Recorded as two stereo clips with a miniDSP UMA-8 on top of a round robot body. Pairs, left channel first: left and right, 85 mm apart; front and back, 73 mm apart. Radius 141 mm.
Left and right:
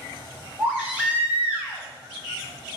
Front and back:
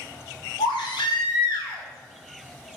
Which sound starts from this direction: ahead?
A baby crying, at 0.6 s.